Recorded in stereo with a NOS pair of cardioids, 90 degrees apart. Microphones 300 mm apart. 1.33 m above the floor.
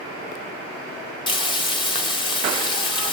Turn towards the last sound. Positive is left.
turn(degrees=15)